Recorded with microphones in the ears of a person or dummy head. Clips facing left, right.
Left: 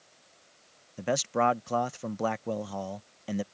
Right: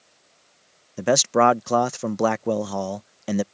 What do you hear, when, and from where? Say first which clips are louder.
1.0 s a man speaking: right 9 dB; 60° right (ahead or behind)